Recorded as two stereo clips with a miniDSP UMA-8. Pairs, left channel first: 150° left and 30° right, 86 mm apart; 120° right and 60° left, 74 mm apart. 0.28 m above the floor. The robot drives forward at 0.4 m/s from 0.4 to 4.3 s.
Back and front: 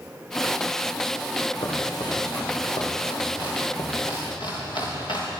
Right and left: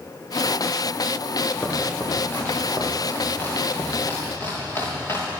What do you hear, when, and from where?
1.6 s chopping: 175° left, 6 m; by 5.3 s straight behind, 7.5 m